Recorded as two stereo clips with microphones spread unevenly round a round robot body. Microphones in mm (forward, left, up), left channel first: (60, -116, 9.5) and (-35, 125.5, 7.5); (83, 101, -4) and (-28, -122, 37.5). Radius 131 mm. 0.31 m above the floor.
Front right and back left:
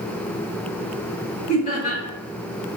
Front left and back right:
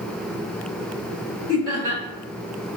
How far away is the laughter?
About 1.8 m.